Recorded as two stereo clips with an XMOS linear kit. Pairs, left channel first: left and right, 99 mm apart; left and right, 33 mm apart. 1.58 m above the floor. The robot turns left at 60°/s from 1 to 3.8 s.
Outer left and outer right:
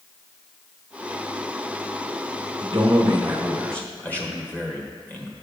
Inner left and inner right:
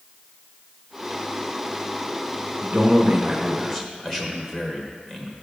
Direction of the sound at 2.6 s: 125° right.